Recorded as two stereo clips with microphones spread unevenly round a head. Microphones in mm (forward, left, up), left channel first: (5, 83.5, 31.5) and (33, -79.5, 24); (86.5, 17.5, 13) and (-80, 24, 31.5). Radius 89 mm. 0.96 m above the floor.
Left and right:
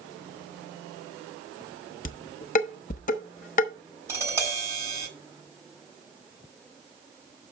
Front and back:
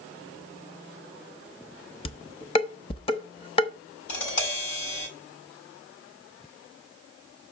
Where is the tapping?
5° right, 6.5 m.